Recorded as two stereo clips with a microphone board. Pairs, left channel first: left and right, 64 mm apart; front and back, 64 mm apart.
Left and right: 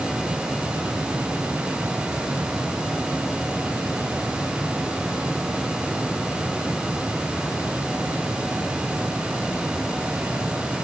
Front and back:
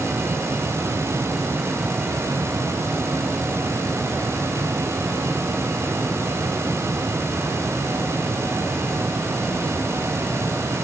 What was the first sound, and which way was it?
Only background noise.